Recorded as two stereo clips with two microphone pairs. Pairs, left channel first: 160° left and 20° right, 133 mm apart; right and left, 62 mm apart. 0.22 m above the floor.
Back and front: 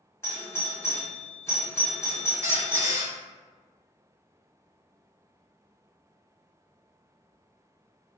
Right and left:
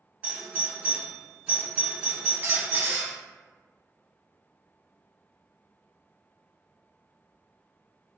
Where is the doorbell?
125° left, 1.6 m.